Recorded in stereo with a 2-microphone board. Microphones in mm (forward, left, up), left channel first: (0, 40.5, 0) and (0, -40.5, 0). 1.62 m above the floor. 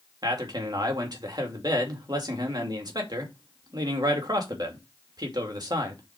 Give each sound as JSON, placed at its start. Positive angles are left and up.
{"t": 0.2, "sound": "a man speaking", "side_deg": -55, "distance_m": 2.5}